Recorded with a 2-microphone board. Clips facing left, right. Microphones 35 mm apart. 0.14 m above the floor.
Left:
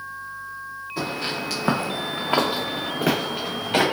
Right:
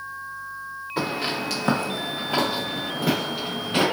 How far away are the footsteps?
About 1.1 m.